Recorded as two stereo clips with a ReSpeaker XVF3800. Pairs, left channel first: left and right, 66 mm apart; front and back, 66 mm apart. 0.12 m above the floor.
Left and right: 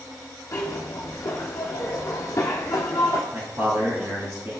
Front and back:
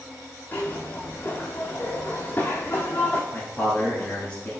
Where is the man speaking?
70° right, 1.6 m.